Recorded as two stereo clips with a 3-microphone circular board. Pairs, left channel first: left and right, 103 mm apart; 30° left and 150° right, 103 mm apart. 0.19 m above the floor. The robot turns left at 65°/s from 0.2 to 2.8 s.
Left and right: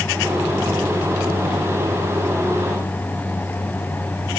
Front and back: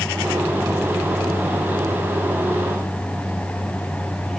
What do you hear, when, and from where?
Only background noise.